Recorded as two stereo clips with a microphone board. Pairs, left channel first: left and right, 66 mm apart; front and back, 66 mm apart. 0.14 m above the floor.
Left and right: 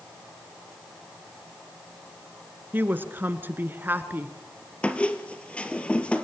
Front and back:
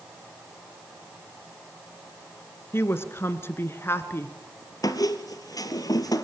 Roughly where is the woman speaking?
Ahead right.